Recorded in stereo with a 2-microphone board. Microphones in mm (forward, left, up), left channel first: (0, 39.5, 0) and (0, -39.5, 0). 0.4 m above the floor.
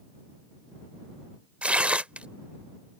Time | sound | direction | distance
1.6 | tearing paper | 15° right (ahead or behind) | ?